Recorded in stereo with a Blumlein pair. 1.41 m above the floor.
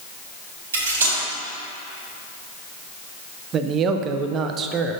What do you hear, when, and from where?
0.7 s cutlery clinking: 65° right, 2 m
3.5 s a man speaking: 30° right, 0.5 m